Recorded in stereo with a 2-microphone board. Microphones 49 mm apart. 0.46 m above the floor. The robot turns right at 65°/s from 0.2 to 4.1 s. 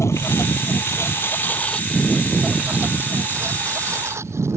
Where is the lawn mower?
75° left (ahead or behind); by 4.6 s 70° right (ahead or behind).